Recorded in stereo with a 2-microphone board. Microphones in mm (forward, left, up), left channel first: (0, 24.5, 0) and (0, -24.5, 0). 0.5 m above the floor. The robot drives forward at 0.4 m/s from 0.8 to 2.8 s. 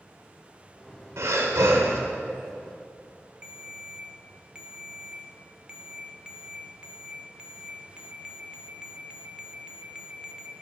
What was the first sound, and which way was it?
Breathing, 70° right (ahead or behind).